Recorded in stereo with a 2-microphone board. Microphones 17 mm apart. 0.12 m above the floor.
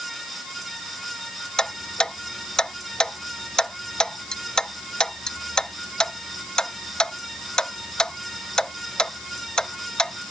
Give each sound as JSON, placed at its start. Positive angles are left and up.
{"t": 1.6, "sound": "ticking", "side_deg": 50}